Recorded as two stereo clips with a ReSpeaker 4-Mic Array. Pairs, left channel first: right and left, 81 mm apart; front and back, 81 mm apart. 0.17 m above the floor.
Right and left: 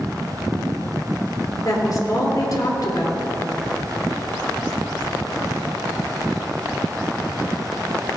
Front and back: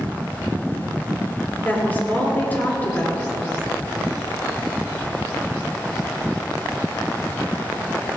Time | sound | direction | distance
1.6 | a woman speaking | 65° right | 3 m